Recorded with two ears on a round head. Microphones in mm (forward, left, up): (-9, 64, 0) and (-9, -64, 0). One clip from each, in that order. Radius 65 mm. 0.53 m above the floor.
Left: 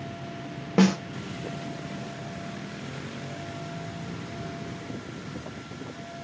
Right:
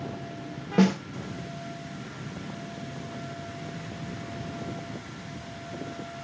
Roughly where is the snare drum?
Left.